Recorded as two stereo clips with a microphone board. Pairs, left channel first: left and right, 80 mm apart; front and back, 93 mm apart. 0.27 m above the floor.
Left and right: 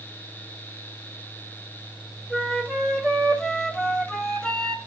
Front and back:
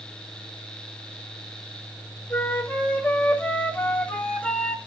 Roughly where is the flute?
Ahead.